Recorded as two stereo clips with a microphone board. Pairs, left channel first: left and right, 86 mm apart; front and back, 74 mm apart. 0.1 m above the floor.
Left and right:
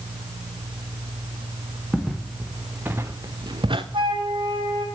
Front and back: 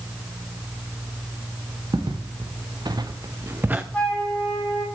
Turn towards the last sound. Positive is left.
turn(degrees=-75)